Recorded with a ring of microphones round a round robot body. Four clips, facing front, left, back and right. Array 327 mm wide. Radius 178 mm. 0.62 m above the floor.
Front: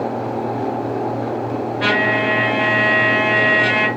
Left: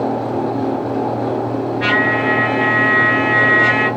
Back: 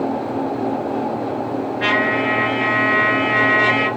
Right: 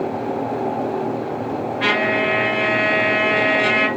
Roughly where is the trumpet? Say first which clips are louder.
Left 2 dB, front 1 dB; ahead right.